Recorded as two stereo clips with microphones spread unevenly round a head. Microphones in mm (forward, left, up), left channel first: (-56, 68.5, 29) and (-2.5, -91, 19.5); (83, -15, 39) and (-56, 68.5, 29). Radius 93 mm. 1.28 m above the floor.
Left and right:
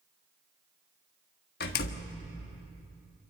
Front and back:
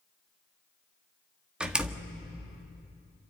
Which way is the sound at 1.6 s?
65° left.